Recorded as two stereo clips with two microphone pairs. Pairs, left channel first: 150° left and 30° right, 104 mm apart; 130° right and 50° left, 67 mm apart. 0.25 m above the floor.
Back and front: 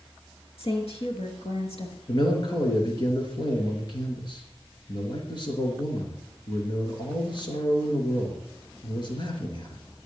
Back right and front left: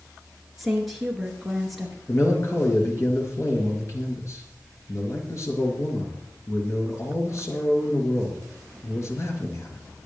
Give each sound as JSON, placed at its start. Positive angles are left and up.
{"t": 0.6, "sound": "a woman speaking", "azimuth_deg": 135, "distance_m": 4.0}
{"t": 2.1, "sound": "a man speaking", "azimuth_deg": -170, "distance_m": 4.0}